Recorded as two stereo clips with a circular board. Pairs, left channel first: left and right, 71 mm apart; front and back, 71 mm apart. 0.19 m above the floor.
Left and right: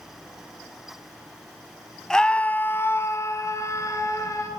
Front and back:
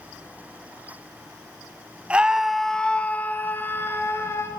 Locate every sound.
2.1 s a scream: 155° left, 1.0 m; by 4.5 s 50° left, 2.5 m